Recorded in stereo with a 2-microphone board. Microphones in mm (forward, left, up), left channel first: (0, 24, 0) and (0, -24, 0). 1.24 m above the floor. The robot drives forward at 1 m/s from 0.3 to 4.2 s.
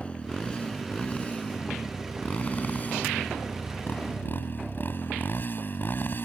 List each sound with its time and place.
0.0 s a motorcycle: 25° left (ahead or behind); by 6.2 s 45° left (ahead or behind)